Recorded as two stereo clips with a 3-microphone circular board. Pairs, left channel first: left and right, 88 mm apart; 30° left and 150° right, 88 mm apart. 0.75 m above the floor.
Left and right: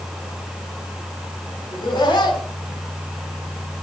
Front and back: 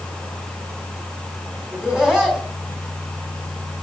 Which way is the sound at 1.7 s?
125° left.